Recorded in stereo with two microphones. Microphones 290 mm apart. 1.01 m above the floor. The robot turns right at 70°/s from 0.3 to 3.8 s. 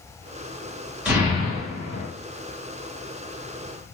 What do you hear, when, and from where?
1.1 s an explosion: 175° right, 2 m; by 2.0 s 105° right, 2 m